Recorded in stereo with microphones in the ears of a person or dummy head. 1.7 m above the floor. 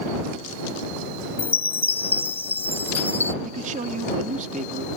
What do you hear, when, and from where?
1.4 s a chime: 20° left (ahead or behind)
3.4 s a man speaking: 40° right (ahead or behind)